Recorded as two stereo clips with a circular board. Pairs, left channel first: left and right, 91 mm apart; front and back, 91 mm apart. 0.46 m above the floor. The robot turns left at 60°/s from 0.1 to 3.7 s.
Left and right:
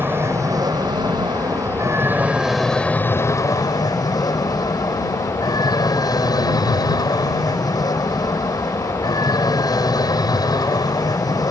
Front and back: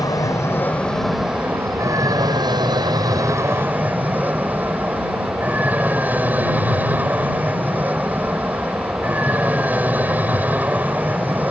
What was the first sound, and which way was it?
An aircraft, 30° right.